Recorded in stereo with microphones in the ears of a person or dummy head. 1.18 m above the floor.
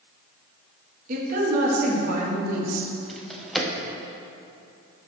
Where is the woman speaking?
55° right (ahead or behind), 2.0 m.